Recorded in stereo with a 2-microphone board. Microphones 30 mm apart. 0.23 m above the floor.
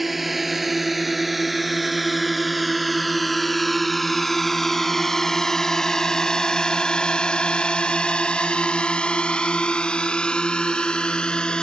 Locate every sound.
0.0 s a drone: 5° right (ahead or behind); by 11.7 s 30° left (ahead or behind)